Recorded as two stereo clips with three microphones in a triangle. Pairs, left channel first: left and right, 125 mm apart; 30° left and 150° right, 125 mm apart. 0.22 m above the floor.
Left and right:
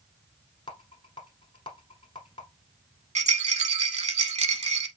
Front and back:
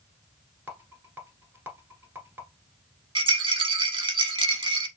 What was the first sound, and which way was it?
A rattle, 135° left.